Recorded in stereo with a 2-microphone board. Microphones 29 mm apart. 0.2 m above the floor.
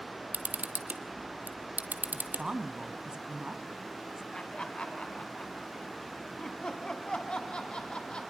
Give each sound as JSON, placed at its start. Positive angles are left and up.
{"t": 0.3, "sound": "a camera shutter", "side_deg": -70, "distance_m": 1.2}
{"t": 2.1, "sound": "a woman speaking", "side_deg": -30, "distance_m": 1.2}
{"t": 4.3, "sound": "laughter", "side_deg": 35, "distance_m": 1.3}